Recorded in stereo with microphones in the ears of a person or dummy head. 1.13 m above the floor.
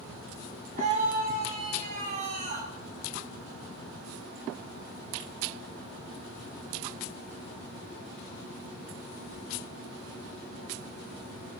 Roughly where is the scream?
Right.